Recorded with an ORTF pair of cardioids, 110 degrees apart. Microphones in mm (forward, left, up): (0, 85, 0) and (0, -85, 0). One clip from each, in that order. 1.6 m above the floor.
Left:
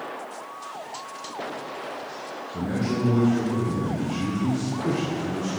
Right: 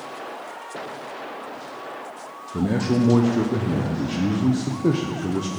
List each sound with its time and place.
2.5 s a man speaking: 40° right, 0.8 m